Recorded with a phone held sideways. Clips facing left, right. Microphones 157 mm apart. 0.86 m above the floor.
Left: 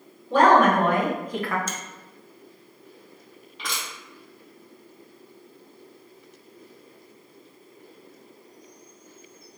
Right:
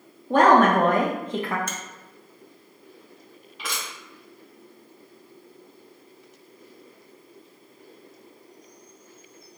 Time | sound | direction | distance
0.3 | a woman speaking | 55° right (ahead or behind) | 0.8 m
1.7 | a finger snap | 60° right (ahead or behind) | 0.5 m
3.6 | crushing | 5° right (ahead or behind) | 1.7 m